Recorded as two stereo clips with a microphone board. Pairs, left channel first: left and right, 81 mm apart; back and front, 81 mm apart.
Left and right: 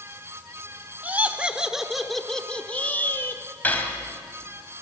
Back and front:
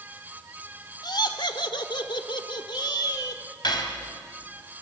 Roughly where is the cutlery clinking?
Behind.